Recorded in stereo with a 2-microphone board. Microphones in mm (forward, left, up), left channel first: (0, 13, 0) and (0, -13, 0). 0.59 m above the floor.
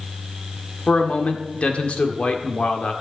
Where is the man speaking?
50° left (ahead or behind), 1.8 m.